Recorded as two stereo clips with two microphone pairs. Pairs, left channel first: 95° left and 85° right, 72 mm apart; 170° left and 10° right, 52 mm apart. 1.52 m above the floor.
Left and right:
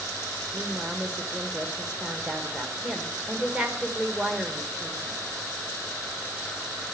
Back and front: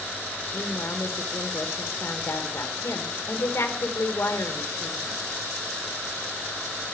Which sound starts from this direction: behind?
A woman speaking, at 0.5 s.